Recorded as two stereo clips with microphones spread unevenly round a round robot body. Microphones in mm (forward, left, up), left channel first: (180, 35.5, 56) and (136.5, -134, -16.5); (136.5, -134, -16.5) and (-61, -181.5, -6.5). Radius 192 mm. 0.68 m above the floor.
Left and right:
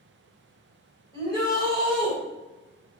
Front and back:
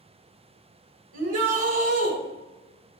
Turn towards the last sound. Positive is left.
turn(degrees=165)